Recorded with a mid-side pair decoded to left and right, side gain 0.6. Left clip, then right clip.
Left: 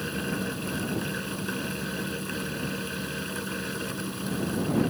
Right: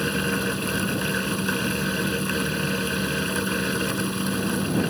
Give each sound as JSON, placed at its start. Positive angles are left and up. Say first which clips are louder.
{"t": 0.0, "sound": "a fan", "louder": "right 7 dB", "azimuth_deg": -40}